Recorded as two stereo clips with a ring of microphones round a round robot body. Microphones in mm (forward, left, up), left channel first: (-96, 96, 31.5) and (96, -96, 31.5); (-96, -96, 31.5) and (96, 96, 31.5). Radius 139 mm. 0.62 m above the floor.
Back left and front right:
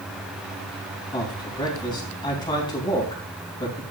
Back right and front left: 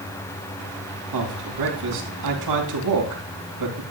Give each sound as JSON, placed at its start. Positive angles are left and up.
{"t": 1.1, "sound": "a man speaking", "azimuth_deg": 60, "distance_m": 4.0}